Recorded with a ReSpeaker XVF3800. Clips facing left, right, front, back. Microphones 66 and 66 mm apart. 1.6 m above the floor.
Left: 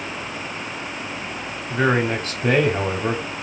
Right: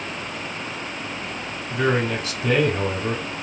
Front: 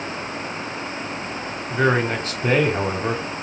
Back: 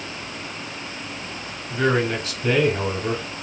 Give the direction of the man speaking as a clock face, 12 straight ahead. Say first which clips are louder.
Left 2 dB, front 1 dB; 10 o'clock.